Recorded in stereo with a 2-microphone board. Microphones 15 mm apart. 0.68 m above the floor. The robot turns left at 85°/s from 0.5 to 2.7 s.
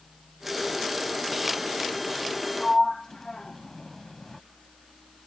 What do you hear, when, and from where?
2.6 s a sliding door: 10° left (ahead or behind); by 4.4 s 20° left (ahead or behind)